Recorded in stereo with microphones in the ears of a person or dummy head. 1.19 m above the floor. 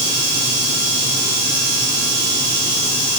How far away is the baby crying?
I don't hear a baby crying.